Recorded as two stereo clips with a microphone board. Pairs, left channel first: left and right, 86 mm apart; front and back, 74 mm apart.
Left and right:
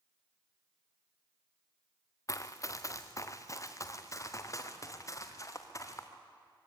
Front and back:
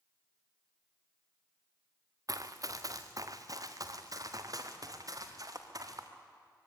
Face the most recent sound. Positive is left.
turn(degrees=145)